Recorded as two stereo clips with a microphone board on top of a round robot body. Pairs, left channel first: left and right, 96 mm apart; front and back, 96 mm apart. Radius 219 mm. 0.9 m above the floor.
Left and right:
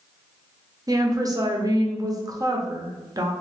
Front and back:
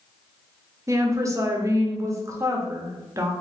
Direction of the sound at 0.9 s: 130° right.